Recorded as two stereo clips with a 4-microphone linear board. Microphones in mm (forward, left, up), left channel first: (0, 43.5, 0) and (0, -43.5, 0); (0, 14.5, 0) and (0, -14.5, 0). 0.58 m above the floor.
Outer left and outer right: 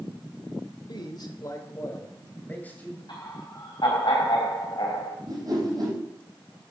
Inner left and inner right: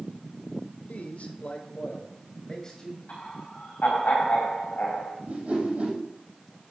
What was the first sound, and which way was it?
A man speaking, 60° left (ahead or behind).